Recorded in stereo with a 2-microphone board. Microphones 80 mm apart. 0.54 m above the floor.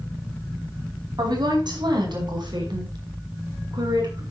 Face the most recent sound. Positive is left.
turn(degrees=-70)  # may be behind; listen again after turning